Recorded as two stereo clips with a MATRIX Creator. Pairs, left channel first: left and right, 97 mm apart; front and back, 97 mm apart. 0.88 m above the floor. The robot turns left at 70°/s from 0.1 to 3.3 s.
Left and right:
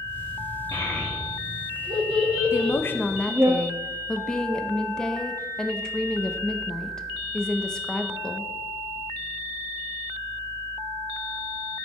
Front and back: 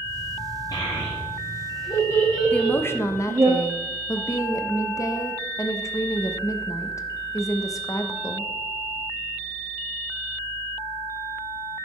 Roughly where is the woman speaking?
Left.